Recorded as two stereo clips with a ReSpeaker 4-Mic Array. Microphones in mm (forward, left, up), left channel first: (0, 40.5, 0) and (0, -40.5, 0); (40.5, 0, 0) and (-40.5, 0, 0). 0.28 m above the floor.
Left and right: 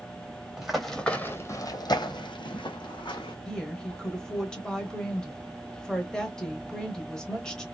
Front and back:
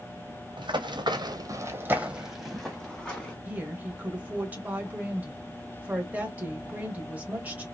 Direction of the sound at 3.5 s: 155° left.